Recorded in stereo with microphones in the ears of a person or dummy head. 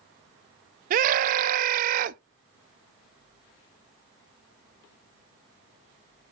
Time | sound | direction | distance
0.9 | a scream | 50° right (ahead or behind) | 0.6 m